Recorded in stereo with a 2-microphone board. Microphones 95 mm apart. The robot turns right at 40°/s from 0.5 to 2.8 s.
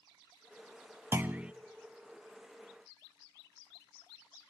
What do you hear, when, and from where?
1.1 s a clunk: 25° right (ahead or behind), 0.5 m; by 1.5 s 10° right (ahead or behind), 0.5 m